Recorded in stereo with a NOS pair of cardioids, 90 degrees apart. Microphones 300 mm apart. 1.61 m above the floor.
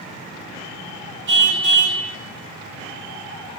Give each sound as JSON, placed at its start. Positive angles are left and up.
{"t": 1.3, "sound": "a car horn", "azimuth_deg": -40, "distance_m": 5.5}